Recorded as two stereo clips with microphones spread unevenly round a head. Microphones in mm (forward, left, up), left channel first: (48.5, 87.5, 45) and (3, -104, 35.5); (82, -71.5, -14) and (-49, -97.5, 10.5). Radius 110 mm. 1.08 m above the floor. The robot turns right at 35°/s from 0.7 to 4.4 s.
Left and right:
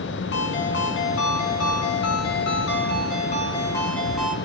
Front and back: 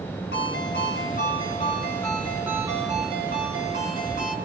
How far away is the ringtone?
About 6.5 m.